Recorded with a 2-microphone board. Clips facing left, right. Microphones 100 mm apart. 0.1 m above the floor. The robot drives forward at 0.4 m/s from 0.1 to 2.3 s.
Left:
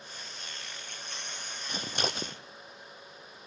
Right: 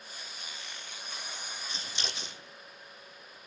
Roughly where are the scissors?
Left.